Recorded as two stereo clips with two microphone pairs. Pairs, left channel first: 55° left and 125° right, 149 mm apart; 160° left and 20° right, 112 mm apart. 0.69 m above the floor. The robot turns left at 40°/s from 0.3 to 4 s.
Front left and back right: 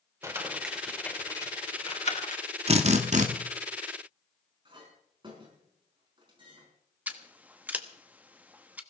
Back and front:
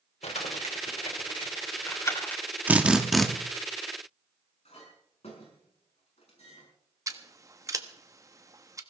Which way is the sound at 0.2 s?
165° left.